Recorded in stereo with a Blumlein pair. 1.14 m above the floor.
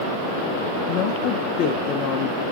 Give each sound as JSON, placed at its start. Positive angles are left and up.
{"t": 0.9, "sound": "a woman speaking", "azimuth_deg": 35, "distance_m": 0.5}